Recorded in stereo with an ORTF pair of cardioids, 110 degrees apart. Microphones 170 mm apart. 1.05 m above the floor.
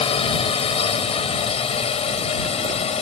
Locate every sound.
0.0 s a drone: 35° left; by 3.0 s 40° left